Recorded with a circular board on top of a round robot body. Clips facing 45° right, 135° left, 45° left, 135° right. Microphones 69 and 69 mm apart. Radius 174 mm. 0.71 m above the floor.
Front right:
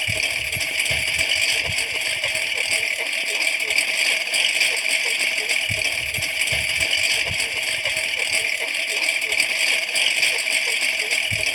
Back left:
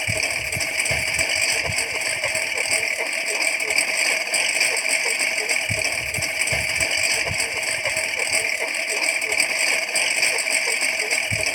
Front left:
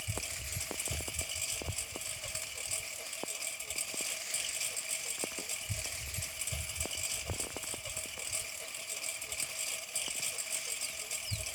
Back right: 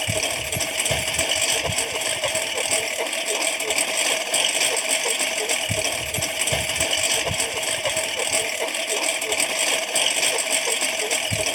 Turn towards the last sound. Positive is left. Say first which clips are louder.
# even, back right 18 dB
turn(degrees=-155)